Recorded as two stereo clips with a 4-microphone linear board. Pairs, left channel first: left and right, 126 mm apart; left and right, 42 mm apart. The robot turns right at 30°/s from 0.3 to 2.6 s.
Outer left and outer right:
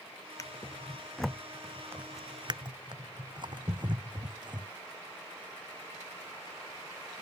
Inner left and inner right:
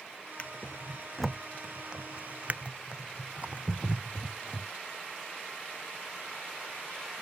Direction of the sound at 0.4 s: 30° left (ahead or behind).